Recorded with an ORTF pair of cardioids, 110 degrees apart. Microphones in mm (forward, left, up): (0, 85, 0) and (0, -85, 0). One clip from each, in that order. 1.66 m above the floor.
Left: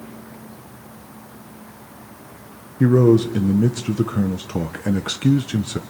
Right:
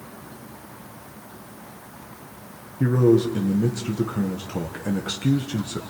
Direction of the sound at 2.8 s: 30° left.